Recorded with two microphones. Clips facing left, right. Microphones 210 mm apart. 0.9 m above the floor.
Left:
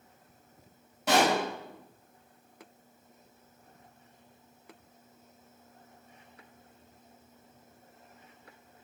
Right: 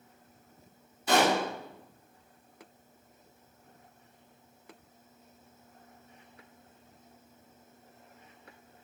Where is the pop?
85° left, 4.5 m.